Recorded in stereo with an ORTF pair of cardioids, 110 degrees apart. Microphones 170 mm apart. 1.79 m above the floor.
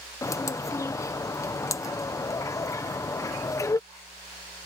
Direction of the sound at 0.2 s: 20° left.